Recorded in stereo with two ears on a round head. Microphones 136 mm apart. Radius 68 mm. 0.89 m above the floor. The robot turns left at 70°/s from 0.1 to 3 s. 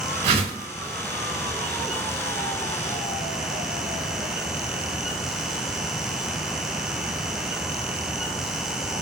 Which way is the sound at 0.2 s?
45° right (ahead or behind).